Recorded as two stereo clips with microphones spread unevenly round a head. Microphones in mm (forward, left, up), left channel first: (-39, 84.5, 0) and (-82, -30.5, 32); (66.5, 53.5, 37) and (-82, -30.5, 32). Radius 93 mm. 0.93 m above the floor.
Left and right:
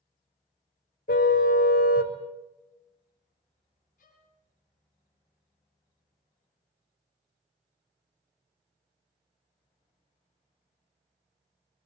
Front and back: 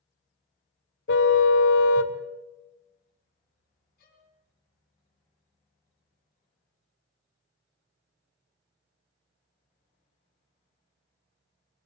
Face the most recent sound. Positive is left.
turn(degrees=65)